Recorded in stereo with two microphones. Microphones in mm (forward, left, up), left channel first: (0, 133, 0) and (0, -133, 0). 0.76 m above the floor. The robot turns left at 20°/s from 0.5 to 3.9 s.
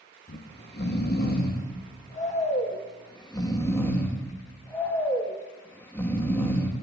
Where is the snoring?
80° left, 0.8 m; by 6.7 s 10° left, 0.8 m.